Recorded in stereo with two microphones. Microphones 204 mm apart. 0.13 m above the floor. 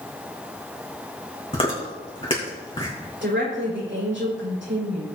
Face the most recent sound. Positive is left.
turn(degrees=-65)  # may be behind; listen again after turning